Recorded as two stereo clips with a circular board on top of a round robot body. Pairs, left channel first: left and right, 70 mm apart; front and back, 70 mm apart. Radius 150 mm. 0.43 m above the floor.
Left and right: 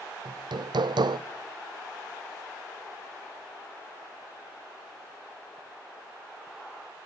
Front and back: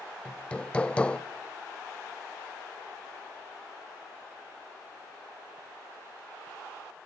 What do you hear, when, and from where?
0.2 s hammering: 75° right, 0.6 m